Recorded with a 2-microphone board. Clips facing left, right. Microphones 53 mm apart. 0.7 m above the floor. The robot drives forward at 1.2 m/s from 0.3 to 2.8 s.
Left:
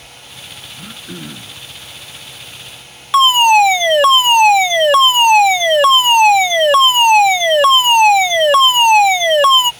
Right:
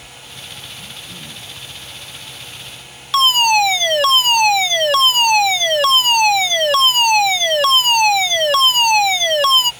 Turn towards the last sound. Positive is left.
turn(degrees=25)  # may be behind; listen again after turning